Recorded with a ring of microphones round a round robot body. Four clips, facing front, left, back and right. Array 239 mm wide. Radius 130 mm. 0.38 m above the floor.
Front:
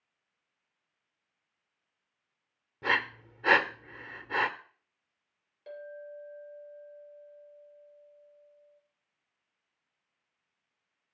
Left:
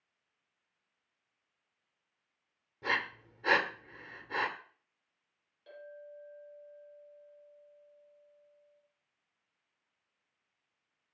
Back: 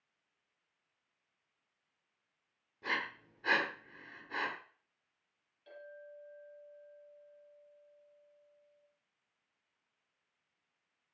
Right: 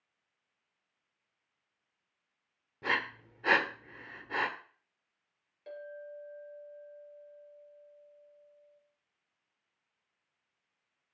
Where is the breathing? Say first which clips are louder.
Right 1 dB, front 8 dB; 20° right, 1.1 m.